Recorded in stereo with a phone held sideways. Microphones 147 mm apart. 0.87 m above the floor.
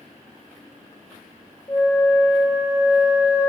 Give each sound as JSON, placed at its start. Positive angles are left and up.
{"t": 1.7, "sound": "a flute", "side_deg": 20, "distance_m": 1.8}